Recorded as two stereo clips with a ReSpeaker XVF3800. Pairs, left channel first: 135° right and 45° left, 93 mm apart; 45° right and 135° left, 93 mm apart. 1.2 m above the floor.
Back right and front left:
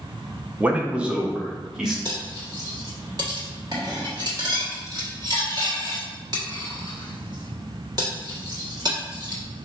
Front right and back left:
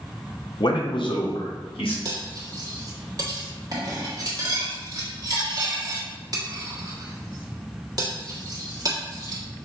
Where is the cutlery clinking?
90° left, 1.3 m.